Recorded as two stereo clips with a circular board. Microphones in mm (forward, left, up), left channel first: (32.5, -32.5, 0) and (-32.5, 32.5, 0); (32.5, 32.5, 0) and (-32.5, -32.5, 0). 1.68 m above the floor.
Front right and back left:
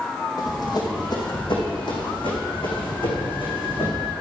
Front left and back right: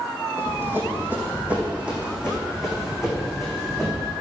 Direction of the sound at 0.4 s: 80° right.